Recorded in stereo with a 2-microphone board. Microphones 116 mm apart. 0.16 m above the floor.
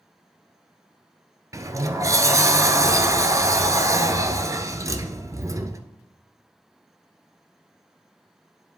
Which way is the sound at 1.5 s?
30° right (ahead or behind).